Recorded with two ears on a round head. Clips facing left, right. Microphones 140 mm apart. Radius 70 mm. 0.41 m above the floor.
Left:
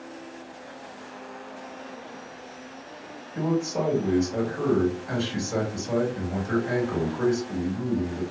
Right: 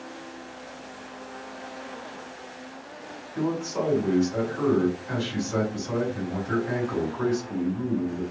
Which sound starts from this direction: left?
A man speaking, at 3.4 s.